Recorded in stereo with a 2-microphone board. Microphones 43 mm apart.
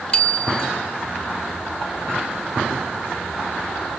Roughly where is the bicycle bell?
Left.